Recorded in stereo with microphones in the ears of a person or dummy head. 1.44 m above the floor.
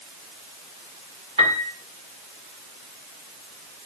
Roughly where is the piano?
Right.